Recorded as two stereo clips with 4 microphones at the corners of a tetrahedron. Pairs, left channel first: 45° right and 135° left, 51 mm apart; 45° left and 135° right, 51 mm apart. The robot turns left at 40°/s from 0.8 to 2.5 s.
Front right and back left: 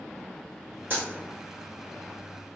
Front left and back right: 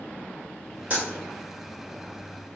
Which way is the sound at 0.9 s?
170° left.